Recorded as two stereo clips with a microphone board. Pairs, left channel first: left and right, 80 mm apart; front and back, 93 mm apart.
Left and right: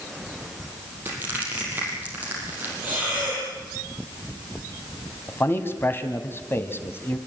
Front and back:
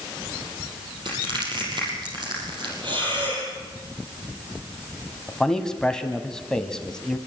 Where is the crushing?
155° right, 5.5 m.